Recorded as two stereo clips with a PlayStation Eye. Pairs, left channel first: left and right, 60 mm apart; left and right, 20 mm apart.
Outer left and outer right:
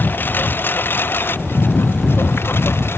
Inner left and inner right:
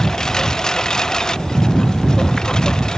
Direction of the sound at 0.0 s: 35° left (ahead or behind).